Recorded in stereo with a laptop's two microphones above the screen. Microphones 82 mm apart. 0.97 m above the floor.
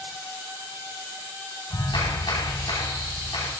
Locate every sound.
1.7 s a clap: 80° left, 6.5 m